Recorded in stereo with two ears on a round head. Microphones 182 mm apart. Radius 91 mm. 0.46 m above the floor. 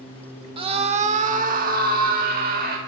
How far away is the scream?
About 1.1 m.